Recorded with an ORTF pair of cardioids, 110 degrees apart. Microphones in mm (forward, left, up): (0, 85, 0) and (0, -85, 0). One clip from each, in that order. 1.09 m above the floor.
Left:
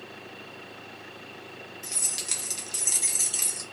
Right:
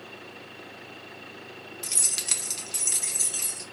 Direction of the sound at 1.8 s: 40° right.